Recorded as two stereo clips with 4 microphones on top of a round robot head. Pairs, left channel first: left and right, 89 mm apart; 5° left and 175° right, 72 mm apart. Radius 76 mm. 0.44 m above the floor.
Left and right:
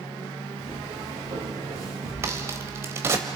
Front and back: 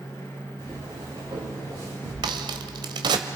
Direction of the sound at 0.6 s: 125° right.